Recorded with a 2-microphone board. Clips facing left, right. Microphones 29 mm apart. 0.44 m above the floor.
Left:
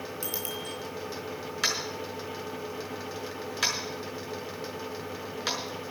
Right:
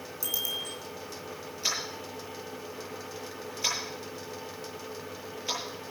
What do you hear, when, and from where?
0.2 s a bicycle bell: 40° left (ahead or behind), 3 m
1.6 s tapping: 80° left, 6.5 m